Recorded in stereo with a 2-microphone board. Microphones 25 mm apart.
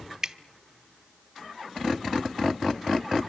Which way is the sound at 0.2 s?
25° right (ahead or behind).